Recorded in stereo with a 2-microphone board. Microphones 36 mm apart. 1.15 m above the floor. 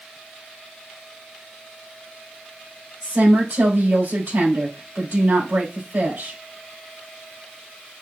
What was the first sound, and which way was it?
A woman speaking, 80° right.